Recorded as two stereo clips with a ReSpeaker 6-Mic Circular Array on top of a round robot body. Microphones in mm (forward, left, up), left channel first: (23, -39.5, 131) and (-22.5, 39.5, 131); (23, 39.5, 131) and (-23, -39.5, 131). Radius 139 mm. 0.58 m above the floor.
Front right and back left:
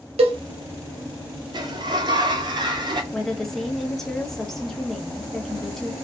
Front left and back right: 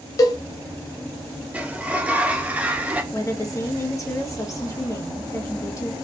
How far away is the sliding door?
About 0.6 m.